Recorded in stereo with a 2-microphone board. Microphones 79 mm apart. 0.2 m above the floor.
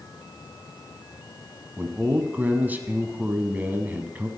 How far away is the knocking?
No knocking in this recording.